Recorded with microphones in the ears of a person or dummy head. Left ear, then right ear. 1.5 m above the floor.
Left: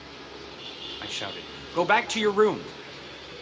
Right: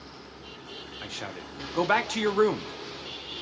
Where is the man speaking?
15° left (ahead or behind), 0.8 m.